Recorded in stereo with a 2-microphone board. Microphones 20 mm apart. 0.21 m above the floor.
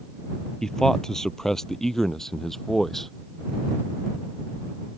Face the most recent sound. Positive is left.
turn(degrees=15)  # may be behind; listen again after turning